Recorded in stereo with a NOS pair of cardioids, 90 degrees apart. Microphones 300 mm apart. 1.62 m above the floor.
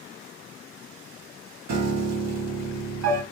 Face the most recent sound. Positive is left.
turn(degrees=-55)